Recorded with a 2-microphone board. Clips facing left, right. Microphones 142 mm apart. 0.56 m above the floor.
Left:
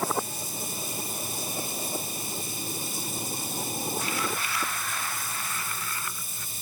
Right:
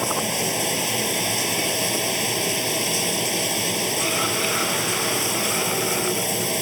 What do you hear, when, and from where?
0.0 s running water: 80° right